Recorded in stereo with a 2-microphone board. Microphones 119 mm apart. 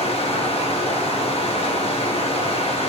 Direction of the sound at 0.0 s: 55° left (ahead or behind).